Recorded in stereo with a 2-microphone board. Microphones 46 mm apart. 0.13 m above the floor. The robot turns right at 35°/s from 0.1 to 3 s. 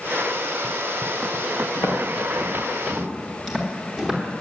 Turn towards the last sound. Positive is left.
turn(degrees=-5)  # may be behind; listen again after turning